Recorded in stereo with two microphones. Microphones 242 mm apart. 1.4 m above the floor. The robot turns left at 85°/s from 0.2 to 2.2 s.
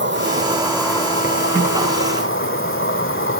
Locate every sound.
0.0 s an insect: 125° right, 2.0 m; by 3.4 s 65° left, 2.0 m